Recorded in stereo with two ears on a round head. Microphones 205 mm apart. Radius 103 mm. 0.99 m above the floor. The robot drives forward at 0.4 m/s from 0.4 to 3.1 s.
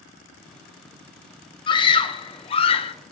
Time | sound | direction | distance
1.7 | a scream | 20° left (ahead or behind) | 0.9 m